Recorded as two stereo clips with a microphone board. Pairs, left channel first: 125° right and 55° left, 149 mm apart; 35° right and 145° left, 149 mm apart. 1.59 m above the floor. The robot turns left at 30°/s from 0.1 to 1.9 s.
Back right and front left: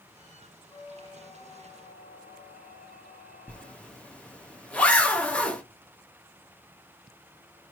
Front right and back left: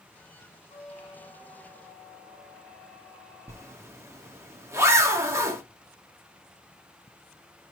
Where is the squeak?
75° right, 2.5 m; by 4.0 s 110° right, 2.5 m.